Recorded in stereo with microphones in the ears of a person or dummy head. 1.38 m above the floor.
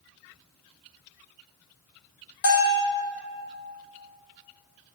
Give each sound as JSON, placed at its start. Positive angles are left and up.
{"t": 2.4, "sound": "a bell", "side_deg": 65, "distance_m": 1.7}